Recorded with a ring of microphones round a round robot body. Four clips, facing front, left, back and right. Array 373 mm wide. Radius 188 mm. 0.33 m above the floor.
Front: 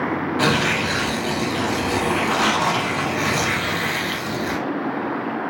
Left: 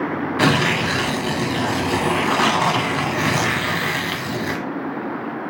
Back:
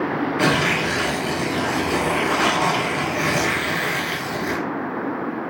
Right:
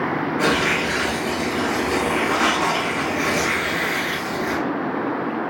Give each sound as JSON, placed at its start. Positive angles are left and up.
{"t": 0.4, "sound": "tearing paper", "azimuth_deg": 85, "distance_m": 1.0}